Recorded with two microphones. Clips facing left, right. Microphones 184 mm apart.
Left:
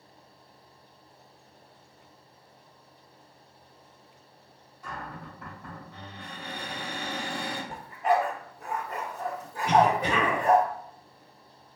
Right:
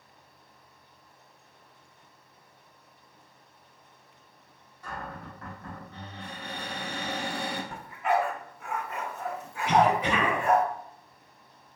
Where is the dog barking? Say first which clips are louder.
Left 3 dB; 35° left (ahead or behind), 0.7 m.